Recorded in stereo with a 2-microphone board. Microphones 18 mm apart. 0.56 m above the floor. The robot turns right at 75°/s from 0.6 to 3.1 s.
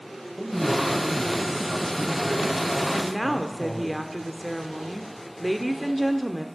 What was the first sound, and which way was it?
A man speaking, 45° right.